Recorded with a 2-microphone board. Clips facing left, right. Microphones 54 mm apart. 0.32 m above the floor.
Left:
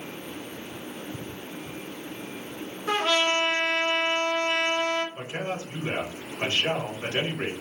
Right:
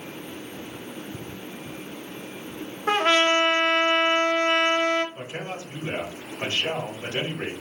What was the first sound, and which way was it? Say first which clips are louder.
A trumpet: right 4 dB; 40° right (ahead or behind).